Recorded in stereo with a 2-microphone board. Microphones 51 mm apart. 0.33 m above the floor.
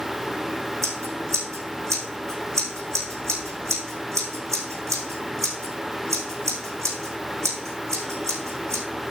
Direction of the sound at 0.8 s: 80° right.